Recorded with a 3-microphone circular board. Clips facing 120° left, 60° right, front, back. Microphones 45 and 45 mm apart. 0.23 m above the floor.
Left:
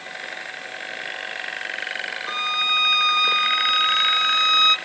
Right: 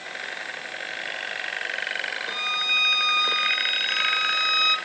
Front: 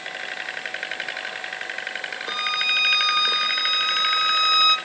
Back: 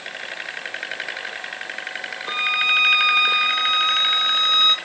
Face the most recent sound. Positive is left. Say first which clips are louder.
# left 4 dB, back 5 dB
turn(degrees=120)